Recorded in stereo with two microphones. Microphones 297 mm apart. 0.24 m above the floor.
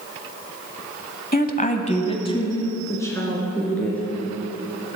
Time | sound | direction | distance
1.3 | a woman speaking | 30° left (ahead or behind) | 1.0 m